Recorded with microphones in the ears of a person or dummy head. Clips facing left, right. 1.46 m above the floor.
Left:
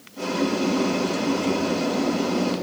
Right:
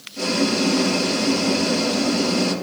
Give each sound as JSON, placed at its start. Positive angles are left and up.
{"t": 0.2, "sound": "boiling", "side_deg": -35, "distance_m": 1.5}